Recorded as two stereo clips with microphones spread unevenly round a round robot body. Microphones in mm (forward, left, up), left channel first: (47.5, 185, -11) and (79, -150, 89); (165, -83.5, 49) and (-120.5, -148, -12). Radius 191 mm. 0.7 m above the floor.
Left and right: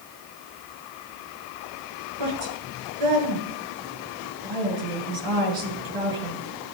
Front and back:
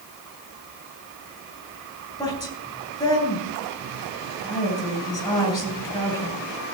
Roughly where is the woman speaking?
Ahead right.